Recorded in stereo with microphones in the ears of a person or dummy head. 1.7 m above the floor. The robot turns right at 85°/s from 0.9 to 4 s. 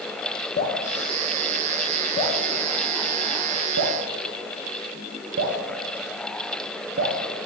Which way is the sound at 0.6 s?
35° left (ahead or behind).